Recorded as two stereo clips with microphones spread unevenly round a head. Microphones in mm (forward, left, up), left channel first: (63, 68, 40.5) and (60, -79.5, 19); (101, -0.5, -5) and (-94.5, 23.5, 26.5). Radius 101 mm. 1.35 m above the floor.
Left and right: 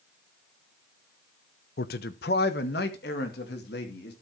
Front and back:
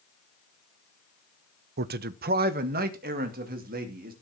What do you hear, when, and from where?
1.8 s a man speaking: 130° left, 0.6 m; by 4.1 s 125° left, 3 m